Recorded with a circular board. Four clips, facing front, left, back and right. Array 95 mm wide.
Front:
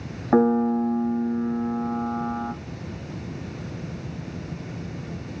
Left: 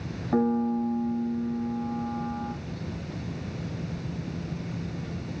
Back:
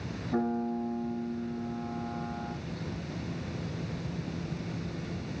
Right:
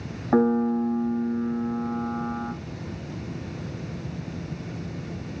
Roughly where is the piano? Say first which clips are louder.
Right 4 dB, front 12 dB; ahead.